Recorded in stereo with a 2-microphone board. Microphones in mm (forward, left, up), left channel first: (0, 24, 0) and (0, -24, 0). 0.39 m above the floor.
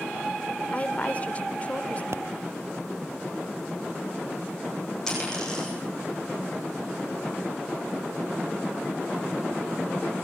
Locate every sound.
0.7 s a woman speaking: 30° left (ahead or behind), 0.9 m
2.1 s a pop: 65° right (ahead or behind), 0.5 m
5.1 s a dropped coin: 10° left (ahead or behind), 9.5 m